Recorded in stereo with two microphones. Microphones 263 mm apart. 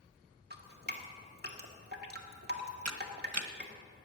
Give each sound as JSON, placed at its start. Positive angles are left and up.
{"t": 0.5, "sound": "dripping", "side_deg": -40, "distance_m": 1.7}
{"t": 2.9, "sound": "a camera shutter", "side_deg": -75, "distance_m": 1.1}